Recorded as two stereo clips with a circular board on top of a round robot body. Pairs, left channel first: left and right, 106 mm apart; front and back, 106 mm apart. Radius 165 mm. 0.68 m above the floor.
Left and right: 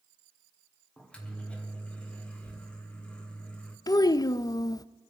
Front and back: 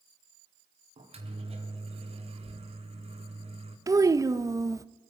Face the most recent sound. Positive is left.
turn(degrees=130)